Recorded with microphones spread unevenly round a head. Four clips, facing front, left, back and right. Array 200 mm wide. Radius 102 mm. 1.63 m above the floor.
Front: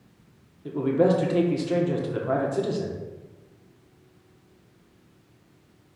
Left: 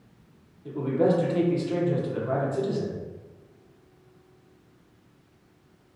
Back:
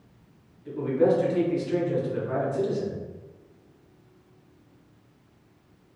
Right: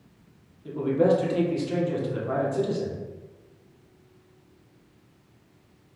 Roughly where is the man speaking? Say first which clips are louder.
Right 2 dB, front 1 dB; ahead.